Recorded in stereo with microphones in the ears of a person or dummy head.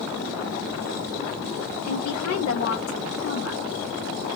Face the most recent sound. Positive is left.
turn(degrees=85)